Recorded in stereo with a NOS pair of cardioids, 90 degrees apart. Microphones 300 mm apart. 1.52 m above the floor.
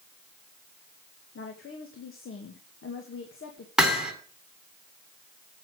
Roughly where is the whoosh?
No whoosh in this recording.